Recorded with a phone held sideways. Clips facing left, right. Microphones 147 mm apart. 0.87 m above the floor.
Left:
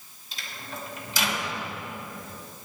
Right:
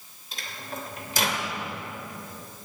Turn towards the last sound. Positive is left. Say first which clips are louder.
# right 2 dB
turn(degrees=-50)  # may be behind; listen again after turning